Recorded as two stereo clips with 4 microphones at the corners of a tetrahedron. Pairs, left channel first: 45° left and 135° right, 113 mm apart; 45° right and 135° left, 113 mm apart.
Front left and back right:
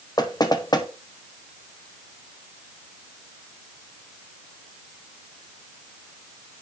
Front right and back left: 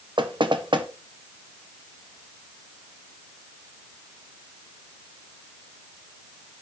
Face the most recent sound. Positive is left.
turn(degrees=95)